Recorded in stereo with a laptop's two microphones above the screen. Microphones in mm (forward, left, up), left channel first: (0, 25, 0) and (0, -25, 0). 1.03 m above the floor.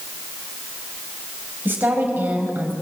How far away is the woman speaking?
About 6 m.